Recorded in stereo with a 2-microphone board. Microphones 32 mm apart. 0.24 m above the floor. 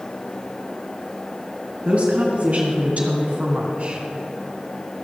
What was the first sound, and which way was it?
A woman speaking, 40° right (ahead or behind).